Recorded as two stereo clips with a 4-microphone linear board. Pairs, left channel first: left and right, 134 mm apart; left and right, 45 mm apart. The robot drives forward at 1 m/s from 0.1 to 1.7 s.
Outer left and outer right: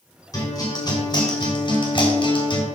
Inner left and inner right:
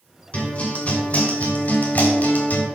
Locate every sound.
0.3 s a guitar: 30° left (ahead or behind), 4 m; by 2.7 s 40° left (ahead or behind), 3 m